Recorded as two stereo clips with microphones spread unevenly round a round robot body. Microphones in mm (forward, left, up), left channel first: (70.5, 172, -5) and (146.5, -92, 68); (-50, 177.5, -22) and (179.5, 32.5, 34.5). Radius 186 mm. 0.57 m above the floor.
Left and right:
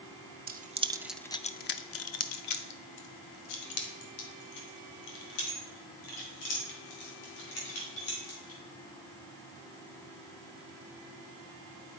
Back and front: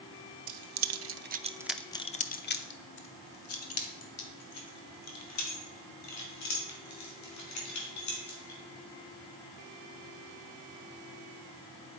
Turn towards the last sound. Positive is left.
turn(degrees=125)